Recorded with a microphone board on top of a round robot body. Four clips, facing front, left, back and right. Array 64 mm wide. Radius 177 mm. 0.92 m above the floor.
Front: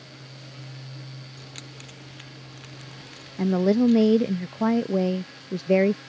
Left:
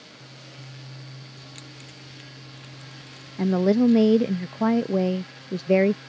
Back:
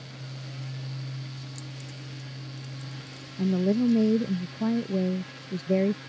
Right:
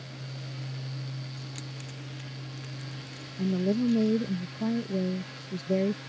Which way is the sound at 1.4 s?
Straight ahead.